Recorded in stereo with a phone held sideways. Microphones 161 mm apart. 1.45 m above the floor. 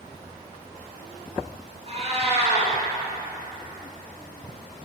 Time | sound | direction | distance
1.9 | a cat meowing | 40° right (ahead or behind) | 1.7 m